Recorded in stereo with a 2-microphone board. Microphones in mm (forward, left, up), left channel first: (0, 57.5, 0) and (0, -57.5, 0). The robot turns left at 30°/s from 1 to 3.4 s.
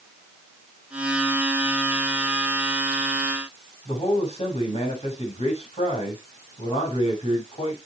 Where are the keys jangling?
I don't hear keys jangling.